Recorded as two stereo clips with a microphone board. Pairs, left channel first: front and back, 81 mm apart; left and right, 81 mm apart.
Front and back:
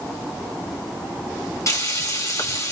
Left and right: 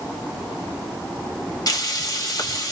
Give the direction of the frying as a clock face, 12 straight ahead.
10 o'clock.